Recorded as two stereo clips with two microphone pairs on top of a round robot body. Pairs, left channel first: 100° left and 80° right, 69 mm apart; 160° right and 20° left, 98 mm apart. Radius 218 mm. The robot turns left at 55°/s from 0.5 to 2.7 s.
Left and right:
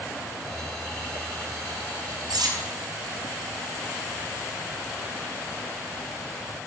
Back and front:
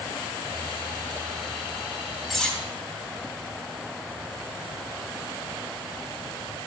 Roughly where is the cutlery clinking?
Ahead right.